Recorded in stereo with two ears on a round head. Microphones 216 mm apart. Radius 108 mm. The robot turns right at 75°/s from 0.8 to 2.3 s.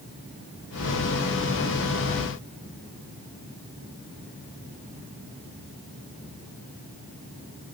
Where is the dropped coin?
No dropped coin in this recording.